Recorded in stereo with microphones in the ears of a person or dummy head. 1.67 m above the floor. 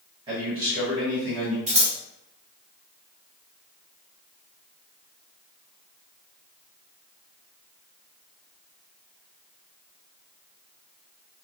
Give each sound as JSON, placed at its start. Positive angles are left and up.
{"t": 0.3, "sound": "a man speaking", "side_deg": -30, "distance_m": 1.3}
{"t": 1.7, "sound": "scissors", "side_deg": -35, "distance_m": 1.2}